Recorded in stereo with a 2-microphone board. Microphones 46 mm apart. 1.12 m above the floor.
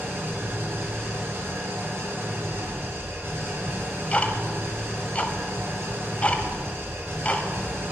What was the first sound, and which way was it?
An engine running, 65° right (ahead or behind).